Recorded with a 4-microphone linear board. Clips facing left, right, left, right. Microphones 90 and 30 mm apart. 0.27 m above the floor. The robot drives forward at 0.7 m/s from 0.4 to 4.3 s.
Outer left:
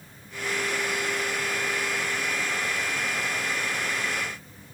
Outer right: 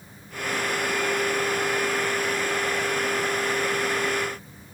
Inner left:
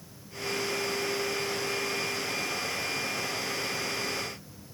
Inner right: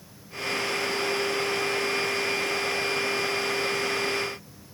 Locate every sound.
Only background noise.